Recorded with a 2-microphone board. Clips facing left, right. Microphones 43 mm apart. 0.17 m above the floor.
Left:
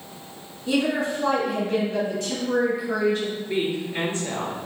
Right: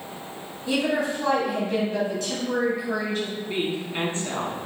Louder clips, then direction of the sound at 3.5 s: Left 3 dB; 40° right (ahead or behind).